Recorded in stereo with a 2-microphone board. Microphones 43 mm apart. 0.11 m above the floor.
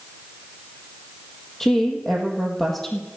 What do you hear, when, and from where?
1.6 s a woman speaking: 10° left (ahead or behind), 3.5 m